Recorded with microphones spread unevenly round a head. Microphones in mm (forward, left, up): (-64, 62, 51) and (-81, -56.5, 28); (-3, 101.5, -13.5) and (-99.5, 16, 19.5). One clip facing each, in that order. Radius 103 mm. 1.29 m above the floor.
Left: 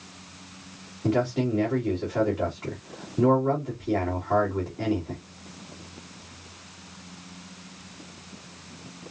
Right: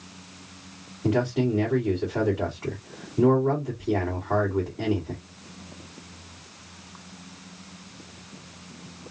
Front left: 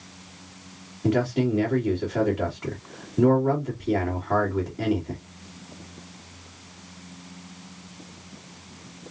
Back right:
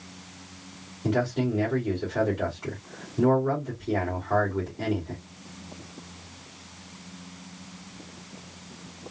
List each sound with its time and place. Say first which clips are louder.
1.0 s a man speaking: right 1 dB, front left 3 dB; 5° right, 2 m